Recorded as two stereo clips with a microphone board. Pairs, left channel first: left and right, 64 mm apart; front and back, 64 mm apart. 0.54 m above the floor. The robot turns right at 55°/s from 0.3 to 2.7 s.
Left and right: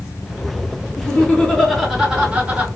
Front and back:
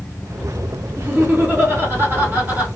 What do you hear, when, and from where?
1.0 s laughter: 130° left, 1.6 m; by 2.7 s 135° right, 1.6 m